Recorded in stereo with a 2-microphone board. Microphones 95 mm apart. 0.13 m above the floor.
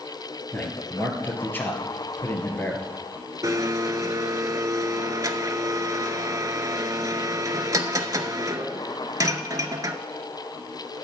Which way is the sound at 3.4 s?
40° right (ahead or behind).